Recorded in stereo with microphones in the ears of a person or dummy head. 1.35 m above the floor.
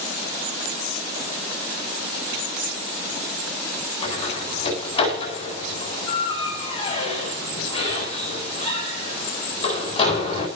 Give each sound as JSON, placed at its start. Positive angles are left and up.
{"t": 4.0, "sound": "a door slam", "side_deg": 30, "distance_m": 9.5}